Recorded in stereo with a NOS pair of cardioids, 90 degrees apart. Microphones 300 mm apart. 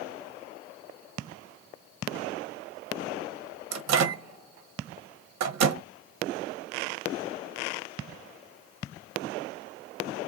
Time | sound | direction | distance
3.7 | a microwave | 60° right | 0.8 m